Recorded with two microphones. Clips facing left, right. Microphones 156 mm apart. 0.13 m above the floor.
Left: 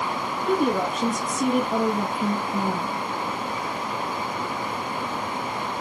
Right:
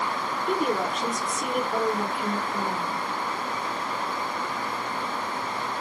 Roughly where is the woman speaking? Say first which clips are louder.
Left 4 dB; left.